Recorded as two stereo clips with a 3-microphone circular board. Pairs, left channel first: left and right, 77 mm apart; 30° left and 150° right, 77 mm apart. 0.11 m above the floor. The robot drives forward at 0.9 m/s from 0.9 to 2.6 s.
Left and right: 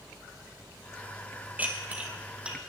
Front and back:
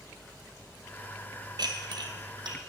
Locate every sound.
1.6 s dishes clattering: 155° right, 1.8 m; by 2.6 s 165° right, 2.5 m